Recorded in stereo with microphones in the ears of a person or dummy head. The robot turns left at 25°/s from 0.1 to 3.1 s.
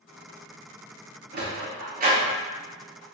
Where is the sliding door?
45° right (ahead or behind), 0.7 m; by 2.4 s 40° right (ahead or behind), 0.7 m.